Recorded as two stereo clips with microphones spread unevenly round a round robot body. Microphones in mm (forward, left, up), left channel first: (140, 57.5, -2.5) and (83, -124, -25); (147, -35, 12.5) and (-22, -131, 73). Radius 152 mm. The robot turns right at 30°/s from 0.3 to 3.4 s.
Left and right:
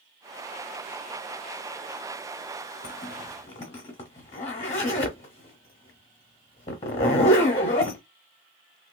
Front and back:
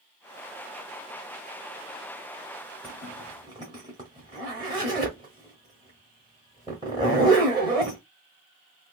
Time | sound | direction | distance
2.8 | a zipper | 120° left | 0.8 m